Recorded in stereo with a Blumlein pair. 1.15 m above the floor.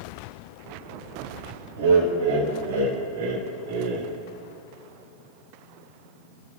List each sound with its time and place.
1.8 s laughter: 65° right, 5 m; by 4.1 s 50° right, 2.5 m